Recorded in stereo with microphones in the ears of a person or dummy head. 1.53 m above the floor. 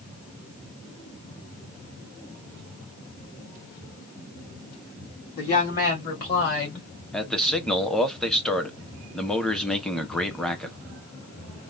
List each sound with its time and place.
5.4 s a woman speaking: 40° left (ahead or behind), 2 m; by 6.9 s 60° left (ahead or behind), 2.5 m
7.1 s a man speaking: 5° left (ahead or behind), 0.7 m